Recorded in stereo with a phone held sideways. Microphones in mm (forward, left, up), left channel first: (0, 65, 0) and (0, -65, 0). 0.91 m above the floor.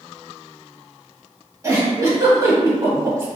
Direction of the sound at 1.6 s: 25° right (ahead or behind).